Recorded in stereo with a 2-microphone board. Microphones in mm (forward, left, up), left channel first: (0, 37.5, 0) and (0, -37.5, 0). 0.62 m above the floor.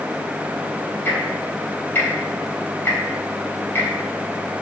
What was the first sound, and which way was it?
Ticking, 30° left (ahead or behind).